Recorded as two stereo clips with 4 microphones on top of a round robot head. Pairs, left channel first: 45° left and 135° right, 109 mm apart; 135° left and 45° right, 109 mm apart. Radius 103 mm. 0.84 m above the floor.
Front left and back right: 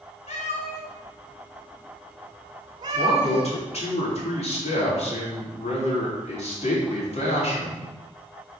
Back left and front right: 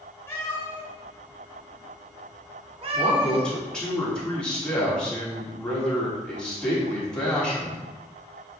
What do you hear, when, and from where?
0.3 s a cat meowing: 65° left, 2 m; by 3.6 s 90° right, 2.5 m
2.9 s a man speaking: 55° left, 3 m